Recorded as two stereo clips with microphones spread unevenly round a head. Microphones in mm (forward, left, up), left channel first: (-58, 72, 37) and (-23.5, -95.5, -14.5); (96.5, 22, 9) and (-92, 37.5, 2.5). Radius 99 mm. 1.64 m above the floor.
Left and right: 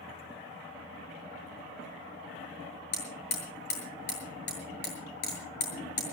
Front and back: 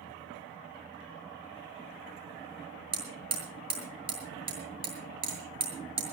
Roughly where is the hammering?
Behind left.